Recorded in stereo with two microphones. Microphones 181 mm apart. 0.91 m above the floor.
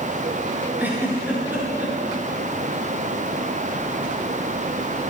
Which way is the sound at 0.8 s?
10° right (ahead or behind).